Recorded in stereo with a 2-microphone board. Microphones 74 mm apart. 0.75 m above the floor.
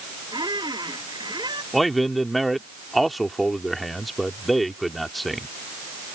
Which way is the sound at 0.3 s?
80° right.